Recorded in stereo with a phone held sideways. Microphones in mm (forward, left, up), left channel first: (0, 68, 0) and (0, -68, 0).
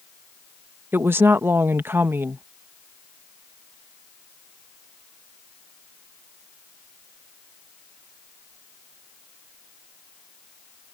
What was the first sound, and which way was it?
A woman speaking, 15° right (ahead or behind).